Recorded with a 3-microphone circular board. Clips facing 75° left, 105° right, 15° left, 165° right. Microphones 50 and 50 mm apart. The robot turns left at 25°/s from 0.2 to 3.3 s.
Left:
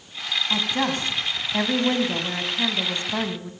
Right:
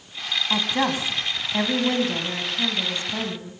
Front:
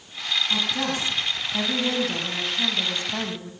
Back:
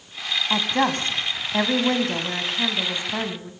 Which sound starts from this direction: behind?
A woman speaking, at 0.5 s.